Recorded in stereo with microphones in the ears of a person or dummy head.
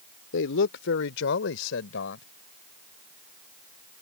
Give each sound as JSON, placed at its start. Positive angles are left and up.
{"t": 0.3, "sound": "a man speaking", "side_deg": 70}